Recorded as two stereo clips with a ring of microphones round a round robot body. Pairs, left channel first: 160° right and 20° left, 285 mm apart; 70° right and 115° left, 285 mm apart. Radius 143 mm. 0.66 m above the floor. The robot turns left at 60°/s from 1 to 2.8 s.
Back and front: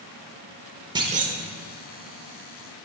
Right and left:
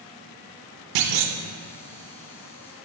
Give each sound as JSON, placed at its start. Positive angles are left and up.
{"t": 0.9, "sound": "a clunk", "azimuth_deg": 100, "distance_m": 0.9}